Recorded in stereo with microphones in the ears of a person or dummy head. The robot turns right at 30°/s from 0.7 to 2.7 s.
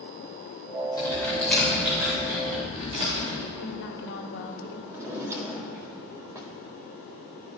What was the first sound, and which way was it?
Typing on a keyboard, 20° left (ahead or behind).